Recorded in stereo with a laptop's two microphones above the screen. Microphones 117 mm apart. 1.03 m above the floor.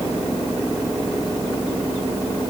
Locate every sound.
Only background noise.